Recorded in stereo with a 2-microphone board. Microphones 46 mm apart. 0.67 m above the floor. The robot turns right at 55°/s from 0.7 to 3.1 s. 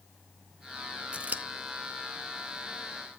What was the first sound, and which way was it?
Scissors, 25° right (ahead or behind).